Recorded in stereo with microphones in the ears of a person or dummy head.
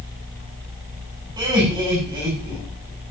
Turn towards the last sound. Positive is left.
turn(degrees=-20)  # may be behind; listen again after turning